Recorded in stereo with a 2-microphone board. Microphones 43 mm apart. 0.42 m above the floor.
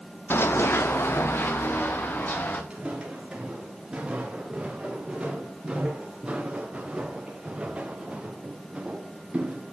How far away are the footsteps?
About 6 m.